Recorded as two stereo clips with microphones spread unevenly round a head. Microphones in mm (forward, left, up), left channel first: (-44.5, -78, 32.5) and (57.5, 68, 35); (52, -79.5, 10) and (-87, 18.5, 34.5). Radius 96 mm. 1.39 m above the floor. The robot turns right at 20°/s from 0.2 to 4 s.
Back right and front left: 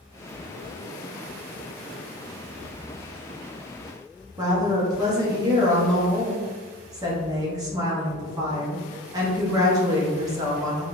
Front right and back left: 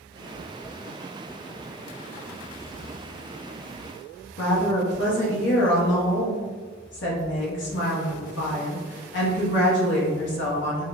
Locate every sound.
4.4 s a woman speaking: 15° right, 0.9 m